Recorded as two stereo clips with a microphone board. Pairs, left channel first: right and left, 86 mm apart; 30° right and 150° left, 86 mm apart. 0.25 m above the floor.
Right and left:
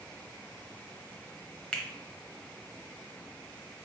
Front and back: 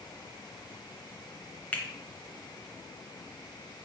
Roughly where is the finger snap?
Ahead right.